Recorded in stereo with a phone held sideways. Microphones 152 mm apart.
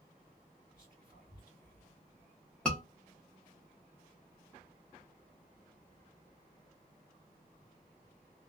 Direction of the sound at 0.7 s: 25° left (ahead or behind).